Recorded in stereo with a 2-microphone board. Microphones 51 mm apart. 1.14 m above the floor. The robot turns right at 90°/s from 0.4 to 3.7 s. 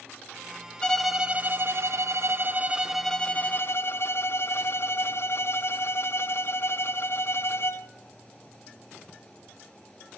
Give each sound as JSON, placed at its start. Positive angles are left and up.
{"t": 0.8, "sound": "a violin", "azimuth_deg": 160, "distance_m": 0.6}